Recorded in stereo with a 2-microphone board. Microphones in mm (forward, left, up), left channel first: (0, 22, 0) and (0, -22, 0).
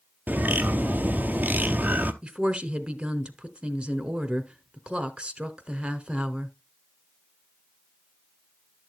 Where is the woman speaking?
25° right (ahead or behind), 1.1 m.